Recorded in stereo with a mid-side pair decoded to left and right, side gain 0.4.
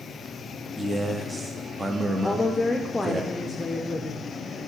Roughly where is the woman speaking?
Ahead left.